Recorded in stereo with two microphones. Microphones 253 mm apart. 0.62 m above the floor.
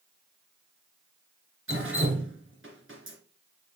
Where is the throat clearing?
I don't hear throat clearing.